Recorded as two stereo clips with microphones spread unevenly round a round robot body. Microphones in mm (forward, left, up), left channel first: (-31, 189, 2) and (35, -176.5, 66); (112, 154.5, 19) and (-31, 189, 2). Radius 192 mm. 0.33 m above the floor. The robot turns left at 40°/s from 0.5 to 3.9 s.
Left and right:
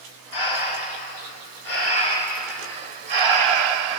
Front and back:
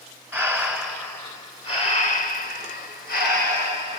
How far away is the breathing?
About 1.4 m.